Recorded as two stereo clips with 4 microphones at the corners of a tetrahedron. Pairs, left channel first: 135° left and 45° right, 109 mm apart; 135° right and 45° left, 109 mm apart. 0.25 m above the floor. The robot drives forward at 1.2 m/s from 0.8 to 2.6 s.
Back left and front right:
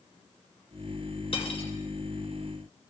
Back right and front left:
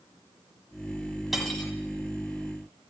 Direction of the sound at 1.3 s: 130° left.